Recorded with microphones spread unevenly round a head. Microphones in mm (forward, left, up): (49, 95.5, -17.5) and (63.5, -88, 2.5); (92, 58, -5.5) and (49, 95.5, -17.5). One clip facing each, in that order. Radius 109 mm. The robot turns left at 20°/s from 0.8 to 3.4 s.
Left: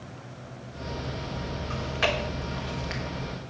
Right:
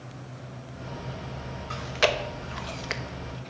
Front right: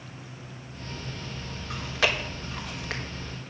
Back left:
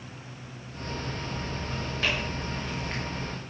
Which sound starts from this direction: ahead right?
Chewing, at 1.7 s.